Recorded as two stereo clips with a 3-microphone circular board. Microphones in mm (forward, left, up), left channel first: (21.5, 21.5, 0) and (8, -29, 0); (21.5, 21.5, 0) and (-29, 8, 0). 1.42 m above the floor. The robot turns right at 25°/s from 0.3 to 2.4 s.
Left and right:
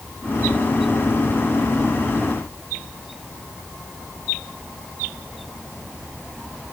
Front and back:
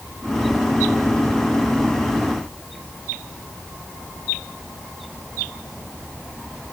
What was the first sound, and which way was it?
Only background noise.